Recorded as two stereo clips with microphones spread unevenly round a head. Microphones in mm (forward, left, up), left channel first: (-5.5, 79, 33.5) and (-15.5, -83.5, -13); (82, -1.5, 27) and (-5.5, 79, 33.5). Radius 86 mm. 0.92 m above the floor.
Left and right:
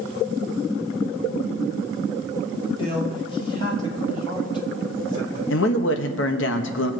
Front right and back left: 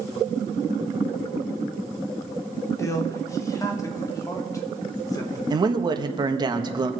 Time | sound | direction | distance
2.8 | a man speaking | 20° left | 2.5 m
5.5 | a man speaking | 85° left | 1.3 m